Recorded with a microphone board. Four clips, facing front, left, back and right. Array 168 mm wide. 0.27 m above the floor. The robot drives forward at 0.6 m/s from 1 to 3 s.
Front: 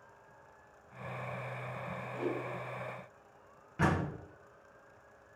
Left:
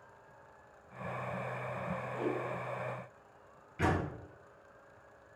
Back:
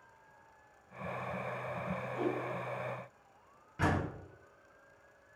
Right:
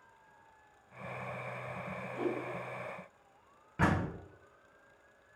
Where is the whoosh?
145° right, 1.4 m; by 2.4 s 155° right, 1.4 m.